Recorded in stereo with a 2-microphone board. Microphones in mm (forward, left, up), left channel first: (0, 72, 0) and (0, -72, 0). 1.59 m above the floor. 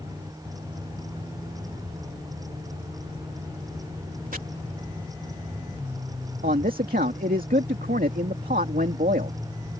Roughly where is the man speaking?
Right.